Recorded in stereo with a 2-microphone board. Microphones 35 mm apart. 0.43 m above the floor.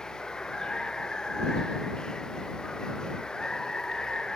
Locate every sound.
0.0 s running water: 20° left (ahead or behind)